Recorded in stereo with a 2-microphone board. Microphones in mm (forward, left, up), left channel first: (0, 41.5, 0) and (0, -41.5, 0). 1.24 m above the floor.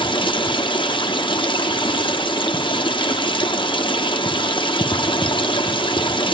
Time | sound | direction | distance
0.0 | running water | 80° left | 0.9 m